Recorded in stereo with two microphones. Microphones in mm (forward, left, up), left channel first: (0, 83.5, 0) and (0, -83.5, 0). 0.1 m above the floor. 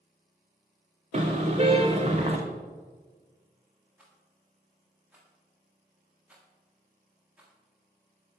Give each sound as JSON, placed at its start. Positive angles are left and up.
{"t": 1.1, "sound": "a car horn", "side_deg": -40, "distance_m": 4.0}
{"t": 4.0, "sound": "a rattle", "side_deg": -5, "distance_m": 7.5}